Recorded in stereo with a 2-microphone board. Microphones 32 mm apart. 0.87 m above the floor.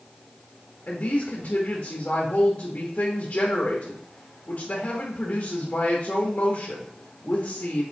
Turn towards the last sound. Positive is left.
turn(degrees=35)  # may be behind; listen again after turning